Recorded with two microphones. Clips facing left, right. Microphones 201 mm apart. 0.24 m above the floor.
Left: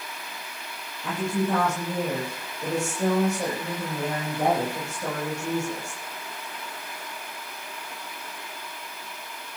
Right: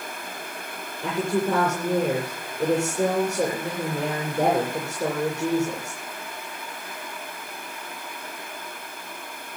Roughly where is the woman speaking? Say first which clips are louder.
Right 3 dB; right.